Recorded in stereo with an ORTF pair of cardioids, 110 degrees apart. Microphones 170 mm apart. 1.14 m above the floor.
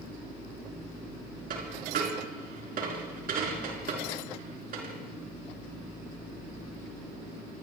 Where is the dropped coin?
60° right, 5 m.